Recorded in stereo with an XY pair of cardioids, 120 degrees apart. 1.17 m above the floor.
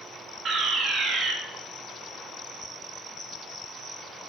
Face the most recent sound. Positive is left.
turn(degrees=-55)